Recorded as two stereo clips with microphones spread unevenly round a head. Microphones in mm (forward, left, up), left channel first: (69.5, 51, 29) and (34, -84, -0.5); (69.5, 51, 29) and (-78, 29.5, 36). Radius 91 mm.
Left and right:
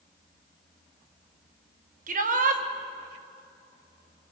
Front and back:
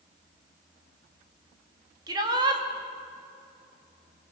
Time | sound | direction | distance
2.1 | a shout | 105° right | 2.5 m